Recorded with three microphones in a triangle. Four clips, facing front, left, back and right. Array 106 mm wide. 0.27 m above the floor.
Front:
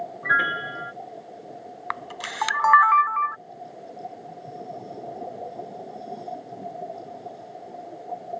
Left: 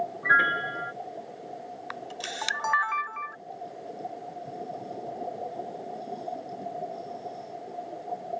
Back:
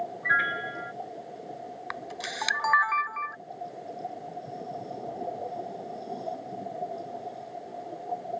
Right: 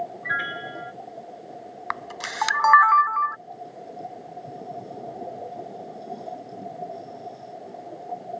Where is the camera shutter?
45° right.